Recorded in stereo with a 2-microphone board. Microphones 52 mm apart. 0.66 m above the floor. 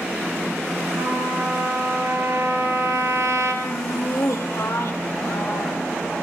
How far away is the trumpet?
About 9 m.